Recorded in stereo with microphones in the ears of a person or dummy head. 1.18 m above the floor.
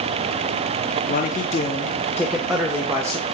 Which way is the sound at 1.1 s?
45° left (ahead or behind).